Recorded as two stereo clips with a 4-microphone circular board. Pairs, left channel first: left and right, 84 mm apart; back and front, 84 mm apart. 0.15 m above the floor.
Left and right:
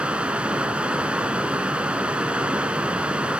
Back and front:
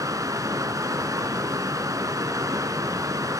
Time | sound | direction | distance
0.0 | running water | 20° right | 0.9 m